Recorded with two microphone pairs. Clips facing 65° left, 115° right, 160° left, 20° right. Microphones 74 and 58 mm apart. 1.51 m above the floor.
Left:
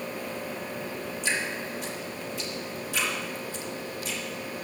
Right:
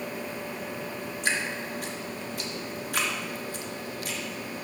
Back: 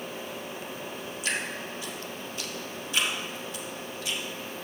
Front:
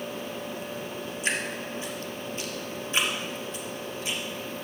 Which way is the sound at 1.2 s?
80° right.